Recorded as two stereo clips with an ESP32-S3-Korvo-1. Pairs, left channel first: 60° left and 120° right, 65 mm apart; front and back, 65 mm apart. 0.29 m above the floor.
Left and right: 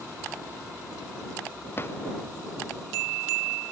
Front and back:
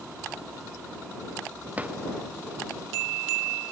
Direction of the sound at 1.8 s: 115° left.